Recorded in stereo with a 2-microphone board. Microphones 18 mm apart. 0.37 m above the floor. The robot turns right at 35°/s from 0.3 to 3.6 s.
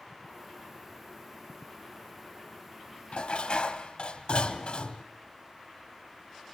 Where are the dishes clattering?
65° left (ahead or behind), 1.7 m.